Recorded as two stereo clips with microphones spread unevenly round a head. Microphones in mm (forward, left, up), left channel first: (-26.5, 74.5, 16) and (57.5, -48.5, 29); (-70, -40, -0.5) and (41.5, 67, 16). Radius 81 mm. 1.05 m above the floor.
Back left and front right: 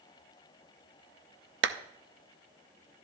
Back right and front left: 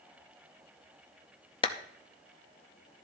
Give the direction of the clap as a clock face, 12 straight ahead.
2 o'clock.